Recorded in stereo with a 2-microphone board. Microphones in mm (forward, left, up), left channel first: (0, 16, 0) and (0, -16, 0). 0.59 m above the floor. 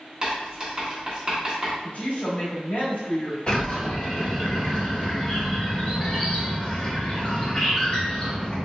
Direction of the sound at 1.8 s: 60° left (ahead or behind).